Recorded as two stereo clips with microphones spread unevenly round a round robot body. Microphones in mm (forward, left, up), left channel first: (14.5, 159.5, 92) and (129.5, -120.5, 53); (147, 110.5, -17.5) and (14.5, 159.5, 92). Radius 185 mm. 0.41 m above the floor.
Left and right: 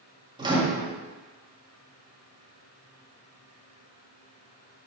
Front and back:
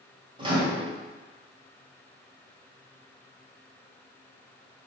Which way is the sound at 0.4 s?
70° right.